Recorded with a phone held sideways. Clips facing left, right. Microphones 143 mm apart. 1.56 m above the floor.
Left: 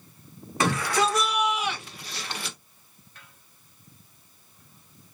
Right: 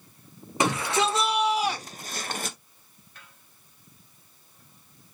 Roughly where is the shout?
Right.